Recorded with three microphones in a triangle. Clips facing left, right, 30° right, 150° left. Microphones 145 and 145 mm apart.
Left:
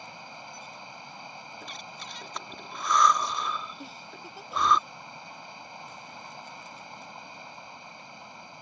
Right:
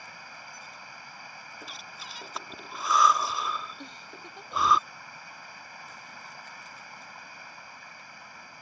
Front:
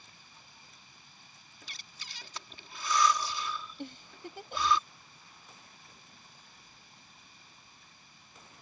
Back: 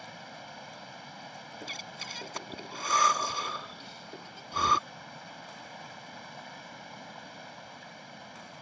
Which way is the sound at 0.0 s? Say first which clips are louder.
Left 3 dB, back 15 dB; 155° left.